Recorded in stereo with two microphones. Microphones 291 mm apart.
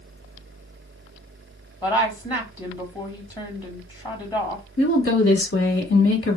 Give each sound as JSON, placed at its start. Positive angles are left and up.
{"t": 1.8, "sound": "a woman speaking", "side_deg": 15, "distance_m": 1.5}
{"t": 4.8, "sound": "a woman speaking", "side_deg": 45, "distance_m": 1.5}